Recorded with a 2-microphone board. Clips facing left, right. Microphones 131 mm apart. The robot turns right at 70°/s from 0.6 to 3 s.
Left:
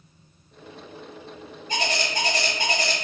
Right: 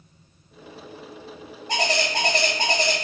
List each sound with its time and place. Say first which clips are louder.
1.7 s a bird: right 3 dB; 105° right, 0.8 m; by 2.9 s 15° right, 0.8 m